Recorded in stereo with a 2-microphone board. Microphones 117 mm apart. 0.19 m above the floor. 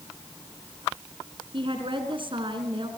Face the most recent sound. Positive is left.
turn(degrees=-45)  # may be behind; listen again after turning